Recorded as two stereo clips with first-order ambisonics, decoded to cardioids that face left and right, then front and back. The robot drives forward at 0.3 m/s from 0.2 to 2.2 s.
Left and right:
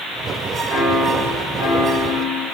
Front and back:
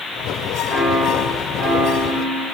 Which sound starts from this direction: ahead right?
A piano, at 0.7 s.